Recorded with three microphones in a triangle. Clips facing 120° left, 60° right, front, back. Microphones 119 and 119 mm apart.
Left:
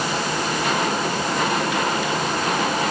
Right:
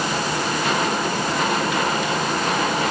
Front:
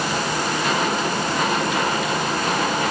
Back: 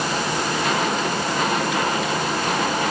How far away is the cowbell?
I don't hear a cowbell.